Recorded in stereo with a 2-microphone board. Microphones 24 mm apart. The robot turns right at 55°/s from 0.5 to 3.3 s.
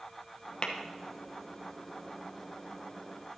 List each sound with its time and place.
0.6 s tapping: 40° left (ahead or behind), 1.1 m; by 0.7 s 30° left (ahead or behind), 1.1 m